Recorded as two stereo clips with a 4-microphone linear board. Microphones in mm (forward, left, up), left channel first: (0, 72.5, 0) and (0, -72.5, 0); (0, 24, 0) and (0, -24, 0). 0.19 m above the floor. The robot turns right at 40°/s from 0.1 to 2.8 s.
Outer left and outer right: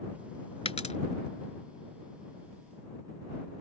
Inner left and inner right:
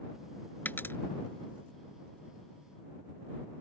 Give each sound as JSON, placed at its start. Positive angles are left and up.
{"t": 0.7, "sound": "a dropped coin", "side_deg": 45}